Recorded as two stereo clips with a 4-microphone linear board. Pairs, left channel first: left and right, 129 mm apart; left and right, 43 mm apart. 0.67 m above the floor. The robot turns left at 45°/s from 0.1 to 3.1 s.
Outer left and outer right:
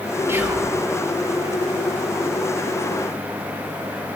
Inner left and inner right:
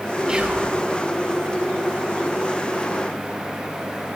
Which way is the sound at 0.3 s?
20° right (ahead or behind).